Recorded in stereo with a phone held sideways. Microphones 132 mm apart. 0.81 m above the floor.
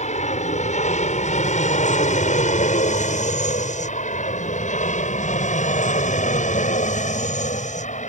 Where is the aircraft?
65° left (ahead or behind).